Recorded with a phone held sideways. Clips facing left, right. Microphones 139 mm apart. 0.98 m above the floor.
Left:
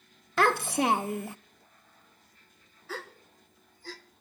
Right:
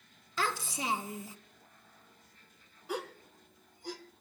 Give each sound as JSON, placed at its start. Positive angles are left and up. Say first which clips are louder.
{"t": 0.4, "sound": "a child speaking", "louder": "left 10 dB", "side_deg": 65, "distance_m": 0.5}
{"t": 2.9, "sound": "a gasp", "louder": "right 3 dB", "side_deg": -15, "distance_m": 1.1}